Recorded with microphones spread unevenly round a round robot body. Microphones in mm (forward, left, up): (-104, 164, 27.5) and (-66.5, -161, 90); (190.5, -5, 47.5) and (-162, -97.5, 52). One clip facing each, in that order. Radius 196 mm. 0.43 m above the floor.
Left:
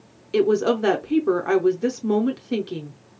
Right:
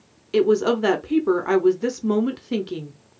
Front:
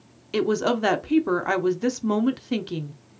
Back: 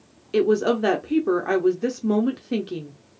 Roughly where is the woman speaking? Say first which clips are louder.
Right 1 dB, back 4 dB; ahead.